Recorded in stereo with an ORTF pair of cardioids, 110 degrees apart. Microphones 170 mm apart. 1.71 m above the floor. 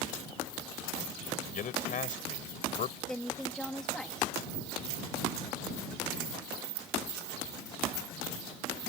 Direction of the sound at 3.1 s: 5° left.